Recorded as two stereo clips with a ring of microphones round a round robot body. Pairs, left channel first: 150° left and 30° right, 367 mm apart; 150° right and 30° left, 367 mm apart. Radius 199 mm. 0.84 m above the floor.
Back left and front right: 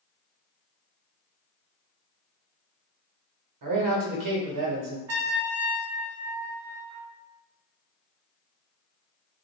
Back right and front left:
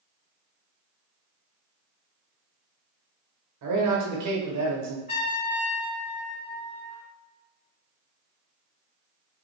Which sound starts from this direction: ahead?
A man speaking, at 3.6 s.